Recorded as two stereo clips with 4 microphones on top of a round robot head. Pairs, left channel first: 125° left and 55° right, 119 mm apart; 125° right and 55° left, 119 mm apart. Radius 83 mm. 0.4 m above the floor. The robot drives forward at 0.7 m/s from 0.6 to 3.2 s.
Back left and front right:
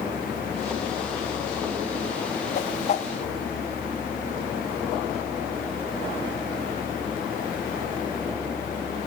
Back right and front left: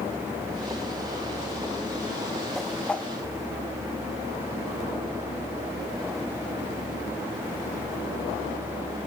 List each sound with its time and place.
2.5 s a whoosh: 145° left, 0.9 m; by 3.1 s 155° left, 1.3 m